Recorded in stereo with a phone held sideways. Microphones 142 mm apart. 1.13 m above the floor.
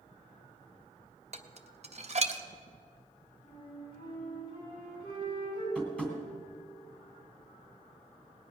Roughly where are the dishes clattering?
Right.